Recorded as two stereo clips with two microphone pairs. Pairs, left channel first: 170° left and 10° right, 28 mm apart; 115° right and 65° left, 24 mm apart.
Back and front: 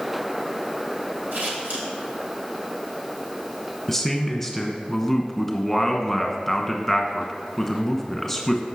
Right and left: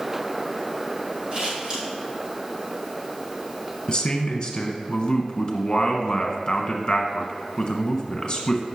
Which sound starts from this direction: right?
A man speaking, at 3.9 s.